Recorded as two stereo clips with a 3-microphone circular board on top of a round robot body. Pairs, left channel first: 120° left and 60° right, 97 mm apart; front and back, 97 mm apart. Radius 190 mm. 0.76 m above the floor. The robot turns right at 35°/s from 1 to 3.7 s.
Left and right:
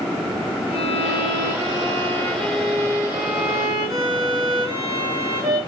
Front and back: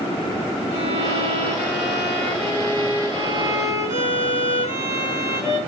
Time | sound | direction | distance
0.7 | a violin | 150° left | 6.5 m